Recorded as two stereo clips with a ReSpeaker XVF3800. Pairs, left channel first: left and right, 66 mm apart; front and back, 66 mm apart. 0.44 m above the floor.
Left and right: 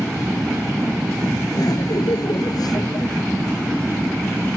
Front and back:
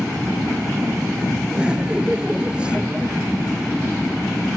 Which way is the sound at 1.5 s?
105° left.